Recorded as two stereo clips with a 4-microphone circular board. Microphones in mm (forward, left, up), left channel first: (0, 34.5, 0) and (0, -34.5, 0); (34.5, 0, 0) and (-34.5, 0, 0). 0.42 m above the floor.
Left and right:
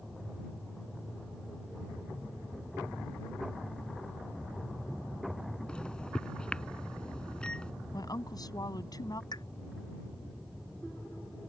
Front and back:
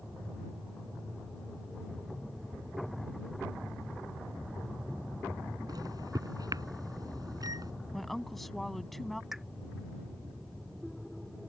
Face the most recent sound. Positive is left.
turn(degrees=95)